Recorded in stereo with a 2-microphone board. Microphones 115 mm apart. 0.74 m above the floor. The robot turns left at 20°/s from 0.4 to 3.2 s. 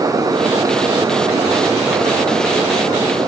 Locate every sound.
Only background noise.